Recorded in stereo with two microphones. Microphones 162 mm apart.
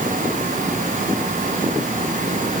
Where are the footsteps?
I don't hear footsteps.